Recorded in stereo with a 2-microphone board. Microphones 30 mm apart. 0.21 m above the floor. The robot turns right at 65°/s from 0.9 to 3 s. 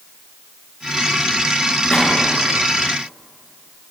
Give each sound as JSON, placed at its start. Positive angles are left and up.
{"t": 1.9, "sound": "a gunshot", "side_deg": 15, "distance_m": 3.5}